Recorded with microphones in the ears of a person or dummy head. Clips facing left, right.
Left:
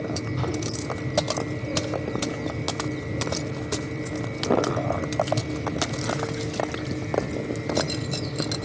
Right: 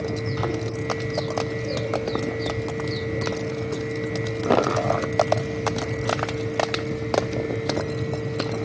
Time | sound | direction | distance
0.0 | a fan | 70° right (ahead or behind) | 1.9 m